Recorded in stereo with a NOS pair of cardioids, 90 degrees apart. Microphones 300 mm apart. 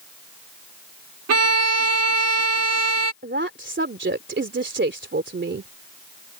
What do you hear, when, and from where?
1.3 s a violin: 60° right
3.2 s a woman speaking: 40° right